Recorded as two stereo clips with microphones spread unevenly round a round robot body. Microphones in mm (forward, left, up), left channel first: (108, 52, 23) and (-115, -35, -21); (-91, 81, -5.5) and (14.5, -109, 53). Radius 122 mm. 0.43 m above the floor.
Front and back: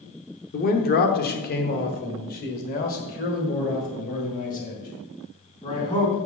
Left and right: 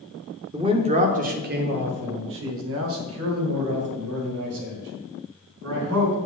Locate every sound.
0.5 s a man speaking: 20° left, 1.0 m; by 6.2 s 40° right, 3.5 m